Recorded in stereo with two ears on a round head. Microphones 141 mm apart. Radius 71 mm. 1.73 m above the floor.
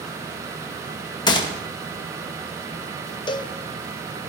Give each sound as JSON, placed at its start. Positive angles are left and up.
{"t": 1.3, "sound": "a gunshot", "side_deg": 30, "distance_m": 1.9}
{"t": 3.3, "sound": "a cowbell", "side_deg": 30, "distance_m": 1.2}